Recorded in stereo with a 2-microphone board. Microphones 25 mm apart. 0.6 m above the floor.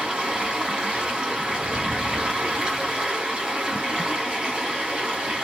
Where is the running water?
35° right (ahead or behind), 1.3 m.